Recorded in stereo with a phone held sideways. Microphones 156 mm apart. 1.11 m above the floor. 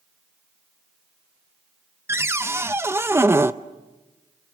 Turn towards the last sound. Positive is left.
turn(degrees=-15)  # may be behind; listen again after turning